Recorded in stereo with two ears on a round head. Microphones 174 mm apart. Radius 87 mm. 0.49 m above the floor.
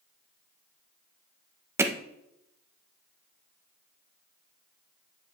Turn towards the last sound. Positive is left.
turn(degrees=-15)  # may be behind; listen again after turning